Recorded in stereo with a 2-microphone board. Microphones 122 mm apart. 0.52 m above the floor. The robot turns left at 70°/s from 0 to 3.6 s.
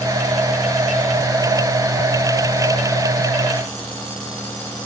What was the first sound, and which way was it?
Only background noise.